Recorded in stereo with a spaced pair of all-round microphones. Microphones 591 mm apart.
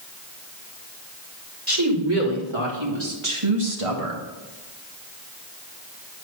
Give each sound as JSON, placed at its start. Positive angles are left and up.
{"t": 1.7, "sound": "a woman speaking", "side_deg": -40, "distance_m": 3.0}